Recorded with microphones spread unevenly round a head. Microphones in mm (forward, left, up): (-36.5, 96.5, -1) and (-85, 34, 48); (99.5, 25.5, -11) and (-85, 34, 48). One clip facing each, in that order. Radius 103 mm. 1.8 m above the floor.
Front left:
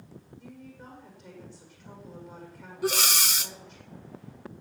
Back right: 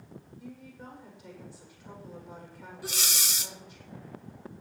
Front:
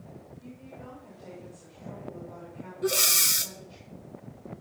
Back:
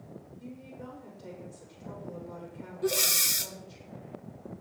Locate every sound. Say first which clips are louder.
0.4 s a woman speaking: back right 1 dB, back 2 dB; 160° left, 7.5 m
2.8 s breathing: front left 10 dB, front 1 dB; 95° left, 0.7 m